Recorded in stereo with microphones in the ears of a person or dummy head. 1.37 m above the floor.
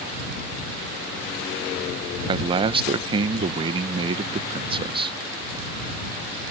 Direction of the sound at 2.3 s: 25° right (ahead or behind).